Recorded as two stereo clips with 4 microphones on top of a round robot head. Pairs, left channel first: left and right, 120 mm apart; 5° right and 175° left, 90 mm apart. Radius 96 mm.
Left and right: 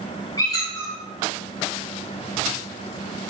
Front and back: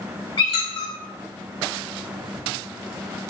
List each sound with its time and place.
0.4 s a squeak: 25° left, 1.2 m